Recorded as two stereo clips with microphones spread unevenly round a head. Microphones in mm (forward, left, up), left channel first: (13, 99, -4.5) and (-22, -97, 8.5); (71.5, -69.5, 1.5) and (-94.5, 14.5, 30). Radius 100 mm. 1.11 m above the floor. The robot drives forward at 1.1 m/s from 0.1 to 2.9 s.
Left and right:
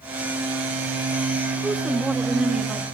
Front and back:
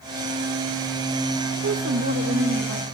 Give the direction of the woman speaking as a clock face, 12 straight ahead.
6 o'clock.